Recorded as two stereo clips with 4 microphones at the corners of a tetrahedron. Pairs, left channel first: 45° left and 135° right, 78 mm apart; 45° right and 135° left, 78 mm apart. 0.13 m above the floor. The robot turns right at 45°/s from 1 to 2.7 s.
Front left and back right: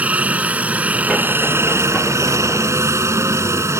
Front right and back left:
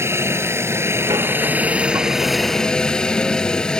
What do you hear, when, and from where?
0.0 s a helicopter: 165° left; by 3.8 s 120° right